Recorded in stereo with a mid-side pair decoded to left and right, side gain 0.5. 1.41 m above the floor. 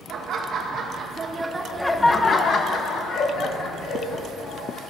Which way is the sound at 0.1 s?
65° right.